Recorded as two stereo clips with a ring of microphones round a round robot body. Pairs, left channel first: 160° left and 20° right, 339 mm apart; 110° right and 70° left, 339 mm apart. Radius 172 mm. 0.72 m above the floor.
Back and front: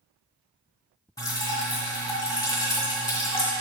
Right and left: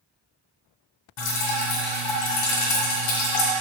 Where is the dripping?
120° right, 1.8 m.